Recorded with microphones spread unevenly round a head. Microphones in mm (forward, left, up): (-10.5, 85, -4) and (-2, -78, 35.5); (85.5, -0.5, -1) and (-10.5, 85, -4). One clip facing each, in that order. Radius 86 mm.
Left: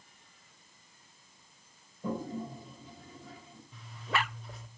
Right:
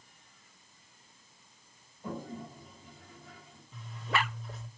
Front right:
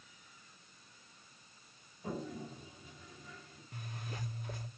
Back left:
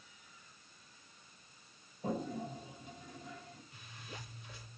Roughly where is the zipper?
Ahead.